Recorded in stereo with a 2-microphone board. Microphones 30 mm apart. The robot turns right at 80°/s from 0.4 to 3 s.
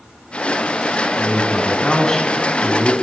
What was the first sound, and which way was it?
A man speaking, 70° left.